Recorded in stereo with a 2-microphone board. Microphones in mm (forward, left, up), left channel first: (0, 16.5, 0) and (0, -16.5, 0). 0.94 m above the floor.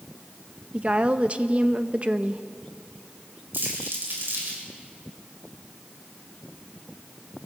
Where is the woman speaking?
30° right (ahead or behind), 0.6 m.